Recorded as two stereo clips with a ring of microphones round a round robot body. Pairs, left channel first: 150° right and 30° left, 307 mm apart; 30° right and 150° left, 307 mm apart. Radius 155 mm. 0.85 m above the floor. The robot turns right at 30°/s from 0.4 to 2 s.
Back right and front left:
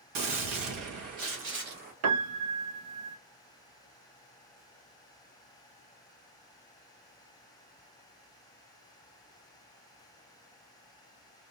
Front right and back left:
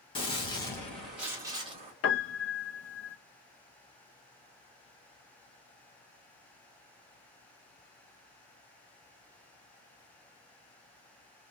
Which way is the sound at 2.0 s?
5° left.